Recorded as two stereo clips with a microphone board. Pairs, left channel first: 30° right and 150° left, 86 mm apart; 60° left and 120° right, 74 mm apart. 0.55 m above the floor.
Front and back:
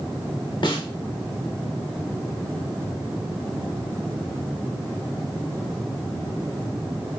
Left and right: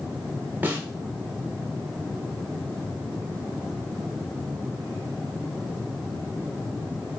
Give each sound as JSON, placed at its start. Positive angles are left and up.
{"t": 0.6, "sound": "a snare drum", "azimuth_deg": -55, "distance_m": 0.7}